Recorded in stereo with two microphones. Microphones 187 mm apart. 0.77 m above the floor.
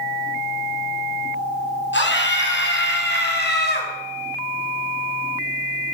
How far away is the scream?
About 5 m.